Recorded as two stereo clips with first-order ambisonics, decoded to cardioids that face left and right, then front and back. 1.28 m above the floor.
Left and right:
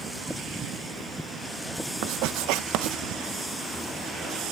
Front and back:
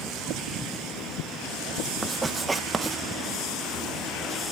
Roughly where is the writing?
Right.